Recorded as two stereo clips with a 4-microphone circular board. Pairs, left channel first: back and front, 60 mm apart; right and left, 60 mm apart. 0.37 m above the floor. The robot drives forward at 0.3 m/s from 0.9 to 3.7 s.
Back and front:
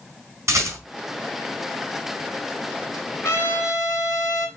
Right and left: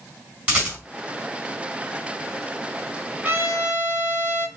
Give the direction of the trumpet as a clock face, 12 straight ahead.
7 o'clock.